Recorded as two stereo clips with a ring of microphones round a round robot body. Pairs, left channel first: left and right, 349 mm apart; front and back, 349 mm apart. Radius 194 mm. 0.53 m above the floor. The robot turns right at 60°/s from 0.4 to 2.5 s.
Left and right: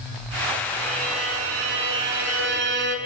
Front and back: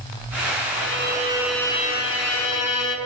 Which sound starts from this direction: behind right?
A violin, at 0.7 s.